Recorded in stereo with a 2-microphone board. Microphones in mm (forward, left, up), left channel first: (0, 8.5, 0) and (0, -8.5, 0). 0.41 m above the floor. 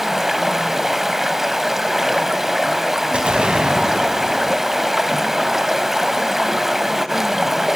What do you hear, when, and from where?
0.0 s running water: 20° right (ahead or behind), 0.7 m
3.1 s an explosion: 75° right (ahead or behind), 1.9 m